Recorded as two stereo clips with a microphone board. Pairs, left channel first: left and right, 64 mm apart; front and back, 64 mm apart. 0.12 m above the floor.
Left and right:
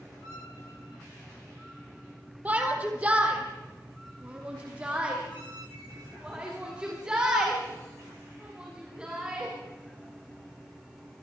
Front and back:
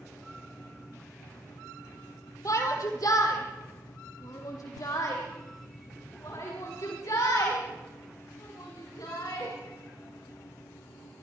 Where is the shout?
25° right, 3 m; by 9.5 s 15° right, 10 m.